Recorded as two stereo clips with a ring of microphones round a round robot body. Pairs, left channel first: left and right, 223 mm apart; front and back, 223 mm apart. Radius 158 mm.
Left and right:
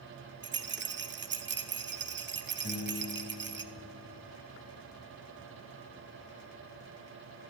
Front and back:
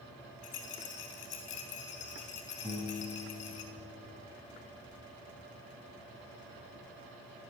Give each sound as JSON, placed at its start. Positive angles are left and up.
{"t": 0.4, "sound": "a rattle", "azimuth_deg": -50, "distance_m": 0.6}
{"t": 2.6, "sound": "a piano", "azimuth_deg": 60, "distance_m": 2.5}